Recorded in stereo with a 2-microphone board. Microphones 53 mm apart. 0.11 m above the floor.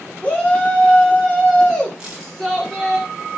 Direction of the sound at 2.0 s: 10° right (ahead or behind).